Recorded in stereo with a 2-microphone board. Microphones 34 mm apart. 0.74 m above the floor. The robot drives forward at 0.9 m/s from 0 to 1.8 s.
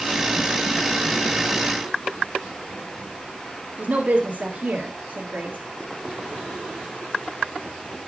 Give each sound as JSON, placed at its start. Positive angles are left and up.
{"t": 3.8, "sound": "a woman speaking", "side_deg": -50, "distance_m": 1.8}